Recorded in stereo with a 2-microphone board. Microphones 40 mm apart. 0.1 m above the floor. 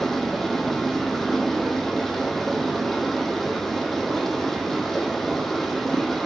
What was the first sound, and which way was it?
Running water, 5° left (ahead or behind).